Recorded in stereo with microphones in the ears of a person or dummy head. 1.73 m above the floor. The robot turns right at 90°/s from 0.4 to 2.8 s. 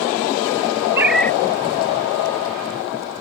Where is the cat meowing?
20° right; by 1.4 s 20° left.